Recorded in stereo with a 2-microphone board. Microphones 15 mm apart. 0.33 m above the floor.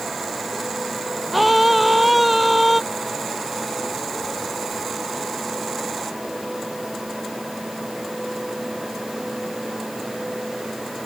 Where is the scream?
10° right (ahead or behind).